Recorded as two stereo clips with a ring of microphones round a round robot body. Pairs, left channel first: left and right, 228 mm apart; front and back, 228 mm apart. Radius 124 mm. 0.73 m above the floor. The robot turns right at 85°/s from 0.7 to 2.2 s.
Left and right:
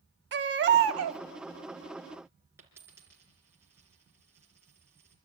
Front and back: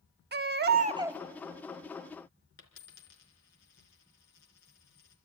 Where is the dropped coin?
10° right, 3.5 m.